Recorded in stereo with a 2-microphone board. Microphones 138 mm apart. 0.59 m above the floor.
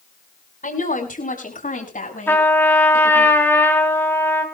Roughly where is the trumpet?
Centre.